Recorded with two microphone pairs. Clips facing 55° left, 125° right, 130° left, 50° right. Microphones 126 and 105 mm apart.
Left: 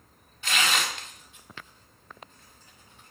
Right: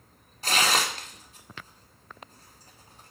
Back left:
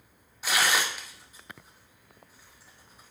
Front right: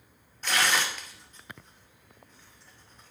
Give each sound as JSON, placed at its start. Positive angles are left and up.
{"t": 0.4, "sound": "tearing paper", "azimuth_deg": -150, "distance_m": 0.6}